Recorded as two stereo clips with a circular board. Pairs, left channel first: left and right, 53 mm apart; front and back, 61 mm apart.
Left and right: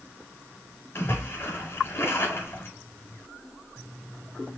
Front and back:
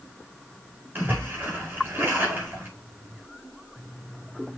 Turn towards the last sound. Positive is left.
turn(degrees=125)